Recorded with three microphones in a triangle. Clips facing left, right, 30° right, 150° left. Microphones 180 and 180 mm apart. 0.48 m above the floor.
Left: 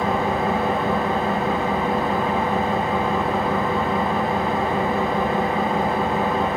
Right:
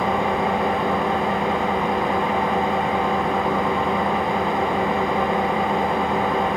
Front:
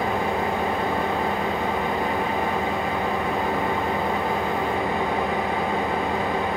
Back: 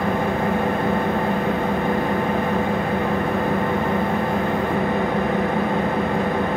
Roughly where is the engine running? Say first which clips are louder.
Even, back 3 dB; behind.